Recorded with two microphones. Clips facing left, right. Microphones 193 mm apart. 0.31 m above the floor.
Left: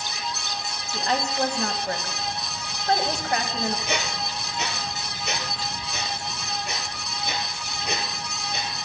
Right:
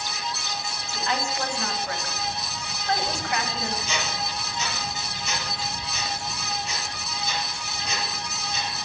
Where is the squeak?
60° left (ahead or behind), 2.5 m.